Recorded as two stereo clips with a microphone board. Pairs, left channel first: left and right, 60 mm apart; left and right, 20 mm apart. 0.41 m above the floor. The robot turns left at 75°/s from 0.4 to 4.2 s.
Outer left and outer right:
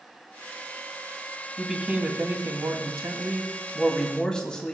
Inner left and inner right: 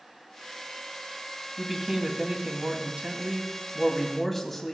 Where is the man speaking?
5° left, 2 m; by 4.8 s 165° left, 2 m.